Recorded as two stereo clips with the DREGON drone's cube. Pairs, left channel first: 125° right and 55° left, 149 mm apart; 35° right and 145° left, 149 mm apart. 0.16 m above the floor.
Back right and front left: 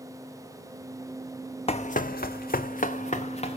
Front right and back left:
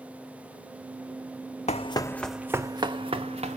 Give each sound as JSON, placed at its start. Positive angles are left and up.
{"t": 1.7, "sound": "running footsteps", "azimuth_deg": -75, "distance_m": 0.5}